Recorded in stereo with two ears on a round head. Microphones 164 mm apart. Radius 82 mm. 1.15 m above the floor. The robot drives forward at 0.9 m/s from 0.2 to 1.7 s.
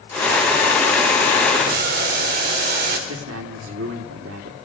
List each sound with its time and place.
1.6 s boiling: 55° right (ahead or behind), 4.5 m
3.1 s a man speaking: 85° right, 3 m